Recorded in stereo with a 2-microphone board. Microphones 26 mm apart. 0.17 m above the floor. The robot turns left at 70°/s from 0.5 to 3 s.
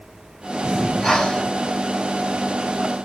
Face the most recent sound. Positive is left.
turn(degrees=20)